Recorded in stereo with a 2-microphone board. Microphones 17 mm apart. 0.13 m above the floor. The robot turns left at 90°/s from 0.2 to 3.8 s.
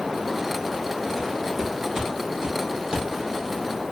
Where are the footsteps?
15° left (ahead or behind), 3 m; by 3.9 s 5° left (ahead or behind), 1.8 m.